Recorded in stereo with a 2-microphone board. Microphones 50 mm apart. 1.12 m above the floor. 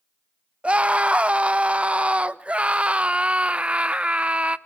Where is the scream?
25° right (ahead or behind), 0.6 m.